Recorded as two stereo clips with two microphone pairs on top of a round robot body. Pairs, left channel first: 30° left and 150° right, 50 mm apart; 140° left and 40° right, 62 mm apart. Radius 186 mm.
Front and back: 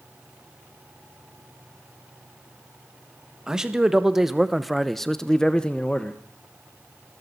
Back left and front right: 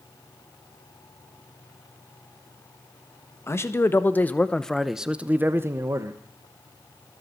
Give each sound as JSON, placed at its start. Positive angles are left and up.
{"t": 3.5, "sound": "a man speaking", "azimuth_deg": 135, "distance_m": 1.6}